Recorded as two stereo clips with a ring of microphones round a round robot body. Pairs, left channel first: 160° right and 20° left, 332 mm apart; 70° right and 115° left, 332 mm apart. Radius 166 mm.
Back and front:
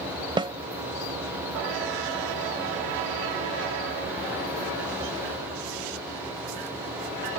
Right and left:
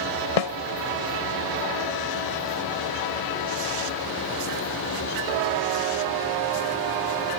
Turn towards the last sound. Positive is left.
turn(degrees=-55)